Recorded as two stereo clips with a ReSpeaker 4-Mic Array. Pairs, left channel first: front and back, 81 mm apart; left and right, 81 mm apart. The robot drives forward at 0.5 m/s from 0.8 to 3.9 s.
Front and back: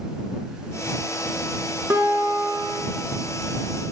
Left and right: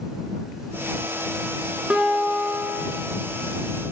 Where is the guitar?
155° right, 0.9 m; by 3.0 s 170° right, 1.2 m.